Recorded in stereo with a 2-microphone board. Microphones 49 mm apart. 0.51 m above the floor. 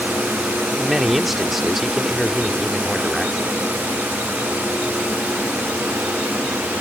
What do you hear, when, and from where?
0.8 s a man speaking: 5° right (ahead or behind)